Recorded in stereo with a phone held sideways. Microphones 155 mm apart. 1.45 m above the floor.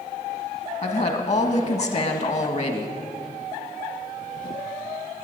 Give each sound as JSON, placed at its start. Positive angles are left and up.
{"t": 0.8, "sound": "a woman speaking", "side_deg": 45, "distance_m": 1.5}